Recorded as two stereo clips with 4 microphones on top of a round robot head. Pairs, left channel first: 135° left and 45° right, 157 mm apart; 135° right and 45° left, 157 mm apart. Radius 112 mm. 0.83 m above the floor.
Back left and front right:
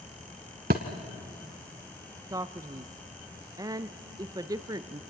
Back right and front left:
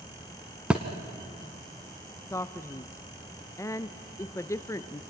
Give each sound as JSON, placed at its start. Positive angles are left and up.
{"t": 0.7, "sound": "a thud", "azimuth_deg": -40, "distance_m": 0.8}
{"t": 2.3, "sound": "a man speaking", "azimuth_deg": -85, "distance_m": 0.6}